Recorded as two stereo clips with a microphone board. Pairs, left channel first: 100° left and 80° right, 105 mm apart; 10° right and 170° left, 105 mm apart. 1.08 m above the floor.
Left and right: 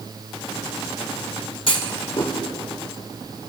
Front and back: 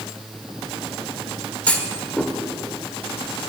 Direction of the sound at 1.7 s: 65° left.